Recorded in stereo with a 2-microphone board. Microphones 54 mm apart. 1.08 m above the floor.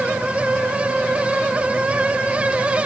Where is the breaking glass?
No breaking glass in this recording.